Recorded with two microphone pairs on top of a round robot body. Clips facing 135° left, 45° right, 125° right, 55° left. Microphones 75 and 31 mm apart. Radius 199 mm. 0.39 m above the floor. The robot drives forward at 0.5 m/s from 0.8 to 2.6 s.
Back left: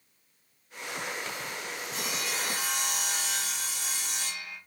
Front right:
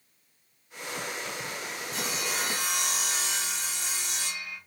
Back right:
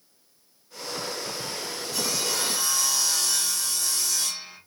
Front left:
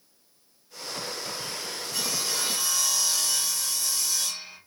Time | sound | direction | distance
1.9 | sawing | 100° right | 1.8 m